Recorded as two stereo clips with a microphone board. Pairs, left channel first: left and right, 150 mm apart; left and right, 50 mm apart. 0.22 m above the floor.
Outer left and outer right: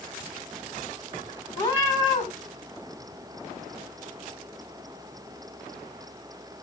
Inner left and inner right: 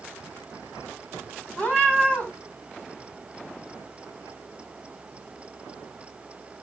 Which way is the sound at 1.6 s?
30° left (ahead or behind).